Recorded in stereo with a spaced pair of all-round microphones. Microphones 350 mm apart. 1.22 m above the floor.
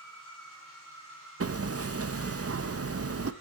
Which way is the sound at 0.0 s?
65° left (ahead or behind).